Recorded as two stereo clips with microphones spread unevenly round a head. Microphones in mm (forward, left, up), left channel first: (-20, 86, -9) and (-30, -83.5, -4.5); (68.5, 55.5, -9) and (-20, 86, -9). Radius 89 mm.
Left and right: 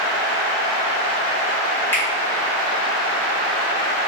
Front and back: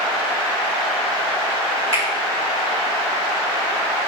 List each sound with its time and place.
1.9 s a finger snap: 165° left, 1.5 m